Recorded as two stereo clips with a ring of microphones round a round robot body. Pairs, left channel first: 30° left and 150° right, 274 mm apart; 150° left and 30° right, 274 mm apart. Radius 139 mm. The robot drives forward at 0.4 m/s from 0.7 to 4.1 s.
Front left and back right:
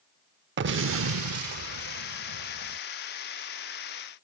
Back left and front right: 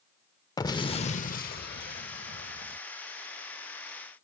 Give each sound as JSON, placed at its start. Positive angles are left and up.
{"t": 0.6, "sound": "an explosion", "azimuth_deg": -140}